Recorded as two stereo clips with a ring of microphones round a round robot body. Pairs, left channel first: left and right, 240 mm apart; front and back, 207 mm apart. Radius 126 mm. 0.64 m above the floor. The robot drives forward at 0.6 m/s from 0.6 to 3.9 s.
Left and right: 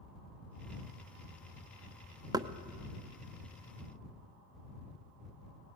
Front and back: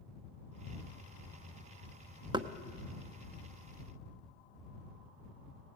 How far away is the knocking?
About 0.7 m.